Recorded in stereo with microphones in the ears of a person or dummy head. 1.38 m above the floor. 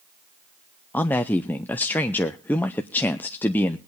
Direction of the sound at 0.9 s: 10° left (ahead or behind).